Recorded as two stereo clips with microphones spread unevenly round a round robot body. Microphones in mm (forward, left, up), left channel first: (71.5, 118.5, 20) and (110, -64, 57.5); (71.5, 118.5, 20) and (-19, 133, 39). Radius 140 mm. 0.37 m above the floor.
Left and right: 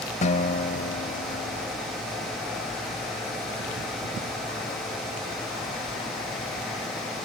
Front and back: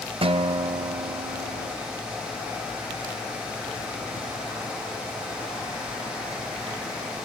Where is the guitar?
150° left.